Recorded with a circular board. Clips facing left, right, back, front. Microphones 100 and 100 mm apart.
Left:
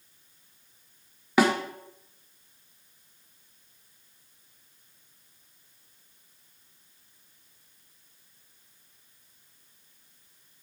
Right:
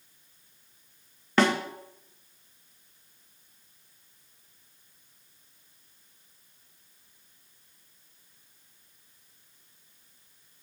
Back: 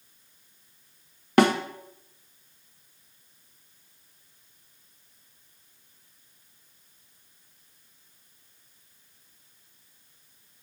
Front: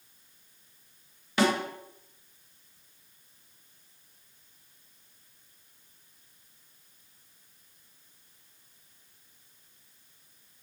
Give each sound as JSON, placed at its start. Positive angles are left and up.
{"t": 1.4, "sound": "a snare drum", "azimuth_deg": 170, "distance_m": 1.3}